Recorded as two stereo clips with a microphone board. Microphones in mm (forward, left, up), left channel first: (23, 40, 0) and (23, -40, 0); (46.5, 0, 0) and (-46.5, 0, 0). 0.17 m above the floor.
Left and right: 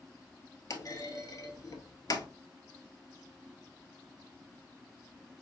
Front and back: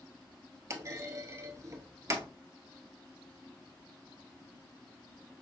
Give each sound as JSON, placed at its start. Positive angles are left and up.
{"t": 0.7, "sound": "a clunk", "azimuth_deg": 125, "distance_m": 0.7}